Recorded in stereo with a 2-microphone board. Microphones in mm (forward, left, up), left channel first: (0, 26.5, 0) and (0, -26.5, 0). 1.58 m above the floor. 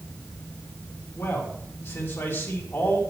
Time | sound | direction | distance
1.1 | a man speaking | 50° left (ahead or behind) | 3 m